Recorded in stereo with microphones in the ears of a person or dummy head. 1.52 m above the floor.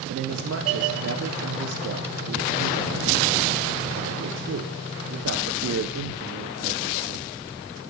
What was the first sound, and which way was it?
A man speaking, 80° right.